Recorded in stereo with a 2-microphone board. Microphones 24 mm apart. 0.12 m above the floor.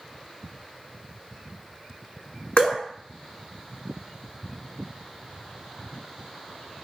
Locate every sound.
2.6 s dripping: 45° left (ahead or behind), 1.0 m